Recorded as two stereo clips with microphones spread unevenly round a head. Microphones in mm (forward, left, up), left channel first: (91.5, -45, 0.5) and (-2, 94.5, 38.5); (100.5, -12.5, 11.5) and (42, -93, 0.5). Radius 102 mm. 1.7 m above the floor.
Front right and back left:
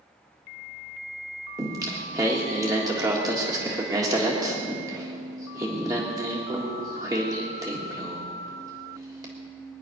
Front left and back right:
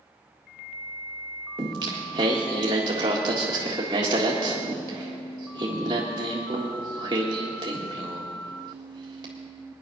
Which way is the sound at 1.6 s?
Straight behind.